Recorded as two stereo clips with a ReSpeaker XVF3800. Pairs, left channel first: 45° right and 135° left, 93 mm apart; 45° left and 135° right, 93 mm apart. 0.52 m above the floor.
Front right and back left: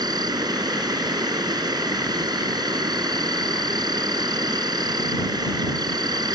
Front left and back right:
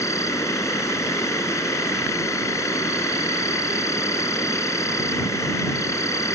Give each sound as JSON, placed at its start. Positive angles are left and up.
{"t": 0.0, "sound": "an insect", "azimuth_deg": 100}